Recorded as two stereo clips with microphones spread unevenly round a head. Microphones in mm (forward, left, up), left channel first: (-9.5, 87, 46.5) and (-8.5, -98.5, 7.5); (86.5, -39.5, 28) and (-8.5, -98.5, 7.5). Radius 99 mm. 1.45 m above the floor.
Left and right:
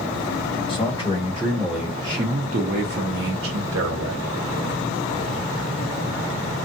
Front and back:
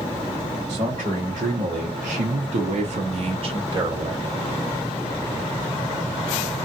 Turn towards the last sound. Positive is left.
turn(degrees=-95)